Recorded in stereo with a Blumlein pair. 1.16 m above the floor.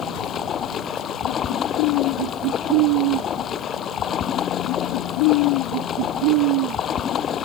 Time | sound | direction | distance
0.0 | running water | 25° left | ?